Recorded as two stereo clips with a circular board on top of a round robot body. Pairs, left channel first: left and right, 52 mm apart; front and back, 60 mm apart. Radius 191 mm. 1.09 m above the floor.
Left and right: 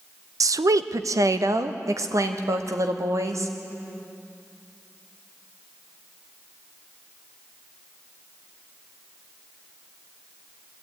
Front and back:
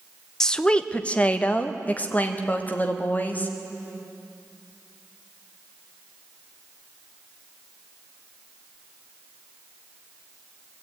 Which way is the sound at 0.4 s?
80° right.